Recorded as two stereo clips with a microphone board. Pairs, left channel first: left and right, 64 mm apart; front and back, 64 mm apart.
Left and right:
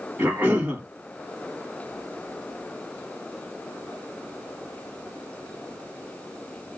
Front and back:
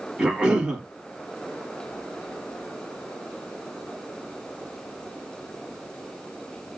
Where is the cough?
120° right, 1.1 m.